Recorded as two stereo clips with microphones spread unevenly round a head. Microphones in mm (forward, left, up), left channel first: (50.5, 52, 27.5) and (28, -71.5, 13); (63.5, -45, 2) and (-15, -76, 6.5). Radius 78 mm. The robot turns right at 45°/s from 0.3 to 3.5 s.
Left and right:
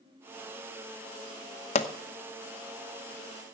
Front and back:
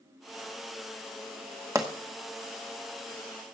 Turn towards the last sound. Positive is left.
turn(degrees=-155)